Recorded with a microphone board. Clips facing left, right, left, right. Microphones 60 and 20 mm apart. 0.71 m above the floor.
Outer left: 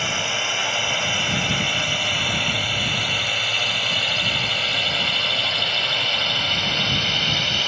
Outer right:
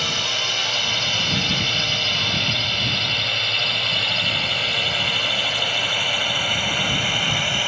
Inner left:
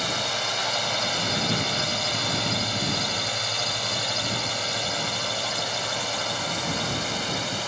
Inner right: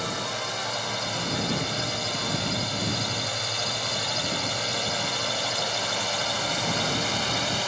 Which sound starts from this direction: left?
A drone, at 0.0 s.